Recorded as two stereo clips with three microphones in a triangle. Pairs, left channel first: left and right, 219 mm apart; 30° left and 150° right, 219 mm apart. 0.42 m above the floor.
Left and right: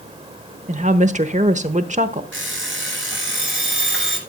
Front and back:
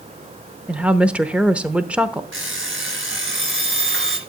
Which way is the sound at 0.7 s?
70° right.